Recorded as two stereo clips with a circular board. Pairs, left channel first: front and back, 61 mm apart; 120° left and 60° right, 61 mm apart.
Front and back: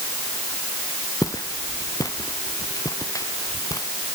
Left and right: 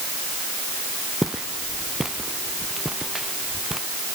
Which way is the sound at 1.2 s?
25° left.